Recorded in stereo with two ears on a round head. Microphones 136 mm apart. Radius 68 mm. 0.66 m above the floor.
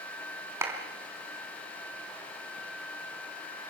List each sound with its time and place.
0.6 s a clap: 20° right (ahead or behind), 4 m